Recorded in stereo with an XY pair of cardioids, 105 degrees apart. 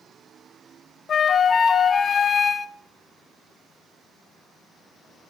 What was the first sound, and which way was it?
A flute, 45° left.